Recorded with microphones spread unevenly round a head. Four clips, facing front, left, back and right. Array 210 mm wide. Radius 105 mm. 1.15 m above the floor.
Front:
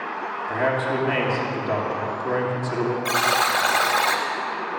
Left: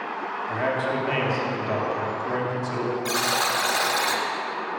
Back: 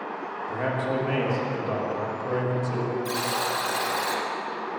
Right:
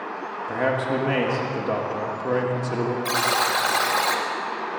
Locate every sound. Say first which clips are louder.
0.5 s a man speaking: right 3 dB, front 4 dB; 65° right, 2 m
3.0 s a buzzer: right 2 dB, front 6 dB; 35° right, 1.8 m